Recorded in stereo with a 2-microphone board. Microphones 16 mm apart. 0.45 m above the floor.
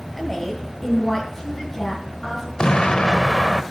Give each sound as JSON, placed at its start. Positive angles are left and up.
{"t": 0.2, "sound": "a woman speaking", "side_deg": 15, "distance_m": 1.8}
{"t": 2.6, "sound": "an explosion", "side_deg": 65, "distance_m": 0.7}